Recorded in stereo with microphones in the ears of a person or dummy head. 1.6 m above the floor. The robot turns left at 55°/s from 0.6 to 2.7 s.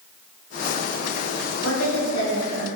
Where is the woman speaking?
95° left, 2.5 m; by 2.7 s 40° left, 2.5 m.